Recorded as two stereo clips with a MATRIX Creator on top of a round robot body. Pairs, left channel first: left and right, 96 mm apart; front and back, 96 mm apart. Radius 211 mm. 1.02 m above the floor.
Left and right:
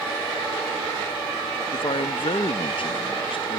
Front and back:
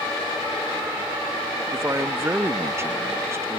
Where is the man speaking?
115° left.